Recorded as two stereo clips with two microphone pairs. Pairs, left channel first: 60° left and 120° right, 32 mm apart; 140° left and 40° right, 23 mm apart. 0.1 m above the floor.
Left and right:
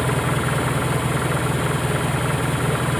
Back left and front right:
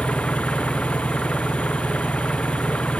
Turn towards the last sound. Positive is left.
turn(degrees=140)